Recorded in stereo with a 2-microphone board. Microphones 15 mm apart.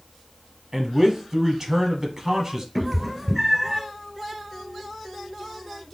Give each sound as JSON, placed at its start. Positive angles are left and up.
{"t": 0.7, "sound": "a man speaking", "side_deg": -25, "distance_m": 1.1}
{"t": 2.8, "sound": "a cat meowing", "side_deg": -10, "distance_m": 1.7}